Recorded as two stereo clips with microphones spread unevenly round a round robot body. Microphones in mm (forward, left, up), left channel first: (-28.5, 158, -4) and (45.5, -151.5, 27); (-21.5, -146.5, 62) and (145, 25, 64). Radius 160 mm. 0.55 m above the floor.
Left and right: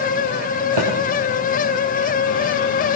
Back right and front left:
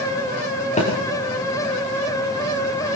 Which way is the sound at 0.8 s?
75° right.